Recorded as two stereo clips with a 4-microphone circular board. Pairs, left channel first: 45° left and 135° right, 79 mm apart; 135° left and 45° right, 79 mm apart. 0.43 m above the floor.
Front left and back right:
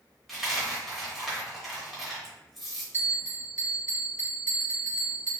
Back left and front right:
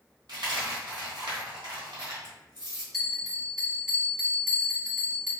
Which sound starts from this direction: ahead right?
A dropped coin, at 0.3 s.